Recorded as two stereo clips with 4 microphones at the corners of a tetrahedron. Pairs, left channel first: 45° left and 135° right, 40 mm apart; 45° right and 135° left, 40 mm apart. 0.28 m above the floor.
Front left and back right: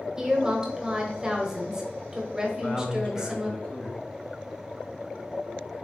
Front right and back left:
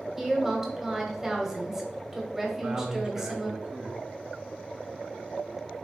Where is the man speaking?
90° left, 1.2 m.